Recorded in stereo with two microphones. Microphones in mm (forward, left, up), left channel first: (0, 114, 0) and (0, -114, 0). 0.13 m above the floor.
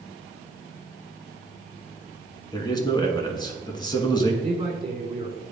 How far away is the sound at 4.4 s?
About 1.2 m.